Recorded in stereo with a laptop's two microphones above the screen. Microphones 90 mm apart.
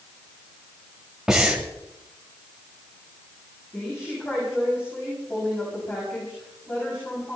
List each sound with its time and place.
1.3 s breathing: 5° right (ahead or behind), 2.5 m
3.7 s a woman speaking: 25° left (ahead or behind), 8.5 m